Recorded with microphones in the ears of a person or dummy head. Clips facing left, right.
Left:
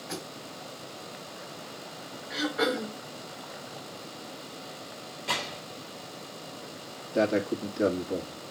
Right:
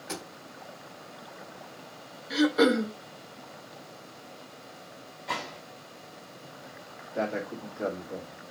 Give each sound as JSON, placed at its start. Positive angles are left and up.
{"t": 0.1, "sound": "a thud", "side_deg": -50, "distance_m": 3.0}
{"t": 2.3, "sound": "throat clearing", "side_deg": -45, "distance_m": 1.5}
{"t": 5.3, "sound": "a gunshot", "side_deg": 40, "distance_m": 3.0}
{"t": 7.1, "sound": "a man speaking", "side_deg": 50, "distance_m": 2.0}